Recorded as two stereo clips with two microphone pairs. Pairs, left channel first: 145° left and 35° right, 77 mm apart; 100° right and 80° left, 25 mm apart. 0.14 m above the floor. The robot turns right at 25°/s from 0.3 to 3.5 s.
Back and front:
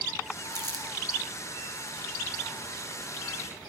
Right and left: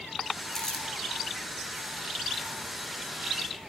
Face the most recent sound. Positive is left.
turn(degrees=40)